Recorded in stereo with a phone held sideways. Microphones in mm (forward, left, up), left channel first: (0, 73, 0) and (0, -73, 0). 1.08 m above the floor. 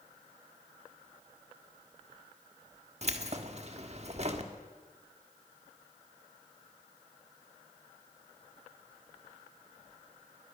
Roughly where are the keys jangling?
Right.